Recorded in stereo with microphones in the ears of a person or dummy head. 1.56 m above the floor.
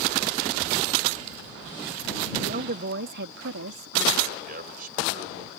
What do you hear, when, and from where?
2.4 s a woman speaking: 40° right (ahead or behind); by 4.3 s 75° right (ahead or behind)
4.4 s a man speaking: 55° right (ahead or behind)